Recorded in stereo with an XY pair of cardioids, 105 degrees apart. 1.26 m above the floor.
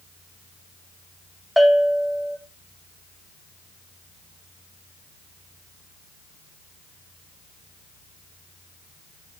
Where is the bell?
5° left, 1.0 m.